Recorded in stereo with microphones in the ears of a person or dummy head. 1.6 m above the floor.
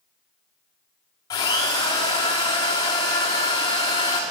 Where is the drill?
25° left (ahead or behind), 2 m.